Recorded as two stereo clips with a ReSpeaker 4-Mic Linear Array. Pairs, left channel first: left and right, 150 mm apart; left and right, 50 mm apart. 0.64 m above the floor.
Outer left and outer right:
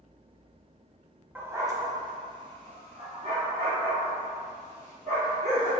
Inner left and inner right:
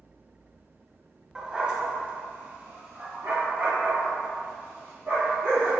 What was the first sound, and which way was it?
A dog barking, 15° right (ahead or behind).